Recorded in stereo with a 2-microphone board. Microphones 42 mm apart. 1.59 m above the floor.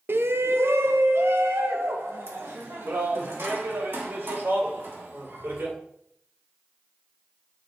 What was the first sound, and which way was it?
A shout, 60° right (ahead or behind).